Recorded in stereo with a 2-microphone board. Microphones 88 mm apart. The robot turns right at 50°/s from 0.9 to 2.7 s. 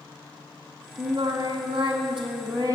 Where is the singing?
130° right, 2 m; by 2.8 s 40° right, 2 m.